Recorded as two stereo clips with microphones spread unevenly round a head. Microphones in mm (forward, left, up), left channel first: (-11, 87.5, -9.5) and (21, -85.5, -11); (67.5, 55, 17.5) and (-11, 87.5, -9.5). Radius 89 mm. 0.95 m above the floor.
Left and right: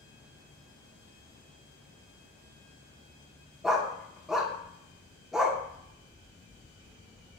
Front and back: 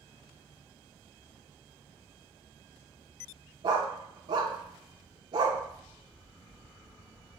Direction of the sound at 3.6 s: 165° right.